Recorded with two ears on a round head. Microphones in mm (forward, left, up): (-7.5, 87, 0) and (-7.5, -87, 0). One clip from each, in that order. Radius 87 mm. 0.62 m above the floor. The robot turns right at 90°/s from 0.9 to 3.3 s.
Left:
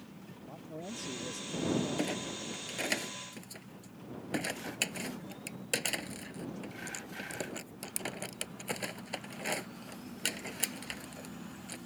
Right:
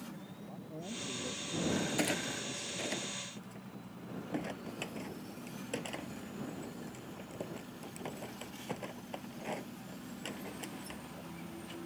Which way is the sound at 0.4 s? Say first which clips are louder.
Left 3 dB; 80° left.